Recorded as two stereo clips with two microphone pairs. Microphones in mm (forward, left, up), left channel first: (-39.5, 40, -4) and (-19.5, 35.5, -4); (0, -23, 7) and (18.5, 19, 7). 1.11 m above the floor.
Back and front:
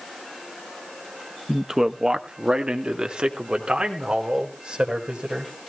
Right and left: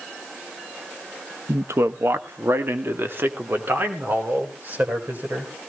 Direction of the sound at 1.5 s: 65° left.